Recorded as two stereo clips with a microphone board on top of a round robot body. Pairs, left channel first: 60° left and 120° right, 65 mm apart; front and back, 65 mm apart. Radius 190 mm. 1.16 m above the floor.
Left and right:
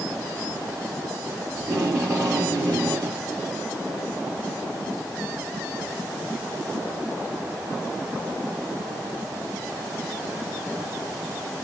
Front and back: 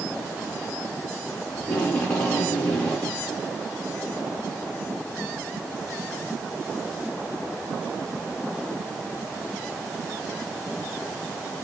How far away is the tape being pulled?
About 5 m.